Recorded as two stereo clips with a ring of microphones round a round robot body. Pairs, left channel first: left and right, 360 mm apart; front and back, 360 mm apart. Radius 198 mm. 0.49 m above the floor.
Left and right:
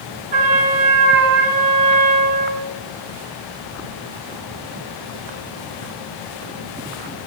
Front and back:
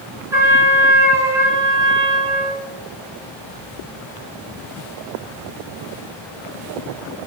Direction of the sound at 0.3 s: 100° right.